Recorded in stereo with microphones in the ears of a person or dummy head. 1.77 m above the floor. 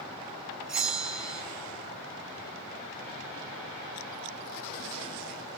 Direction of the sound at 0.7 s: 5° right (ahead or behind).